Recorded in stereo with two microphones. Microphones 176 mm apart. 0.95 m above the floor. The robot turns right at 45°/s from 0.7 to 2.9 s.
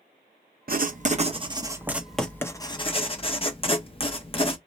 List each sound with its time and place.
0.7 s writing: 65° right, 0.5 m; by 4.6 s 35° left, 0.5 m